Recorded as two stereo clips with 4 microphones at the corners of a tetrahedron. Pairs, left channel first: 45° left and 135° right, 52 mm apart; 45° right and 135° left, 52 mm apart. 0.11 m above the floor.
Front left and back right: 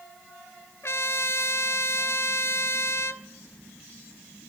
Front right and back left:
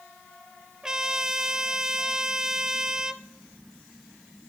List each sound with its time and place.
0.8 s a trumpet: 60° left, 0.5 m